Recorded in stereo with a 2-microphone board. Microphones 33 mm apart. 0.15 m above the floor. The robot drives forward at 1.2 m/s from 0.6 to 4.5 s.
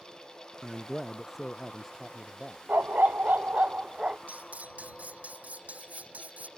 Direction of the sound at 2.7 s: 65° right (ahead or behind).